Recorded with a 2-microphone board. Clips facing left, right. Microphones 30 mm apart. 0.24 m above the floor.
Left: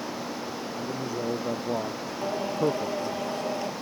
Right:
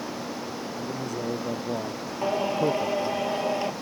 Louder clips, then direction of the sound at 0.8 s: Left 1 dB; 20° left (ahead or behind).